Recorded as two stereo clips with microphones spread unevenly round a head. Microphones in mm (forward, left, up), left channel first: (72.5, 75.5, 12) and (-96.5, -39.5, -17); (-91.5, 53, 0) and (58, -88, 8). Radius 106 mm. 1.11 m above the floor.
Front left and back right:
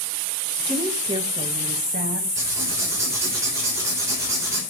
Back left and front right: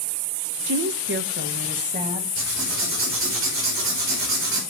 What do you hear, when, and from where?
0.7 s a woman speaking: 55° right, 0.9 m; by 2.3 s 105° right, 1.8 m
2.4 s writing: 70° right, 4 m